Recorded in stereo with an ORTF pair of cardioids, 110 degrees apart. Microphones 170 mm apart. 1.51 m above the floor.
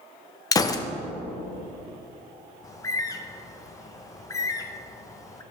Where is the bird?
20° left, 0.7 m.